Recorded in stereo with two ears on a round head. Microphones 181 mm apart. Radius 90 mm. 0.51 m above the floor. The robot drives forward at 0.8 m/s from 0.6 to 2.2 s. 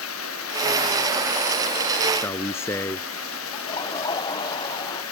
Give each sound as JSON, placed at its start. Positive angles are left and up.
{"t": 0.0, "sound": "running water", "side_deg": 80}
{"t": 2.1, "sound": "a man speaking", "side_deg": 15}
{"t": 3.5, "sound": "laughter", "side_deg": 20}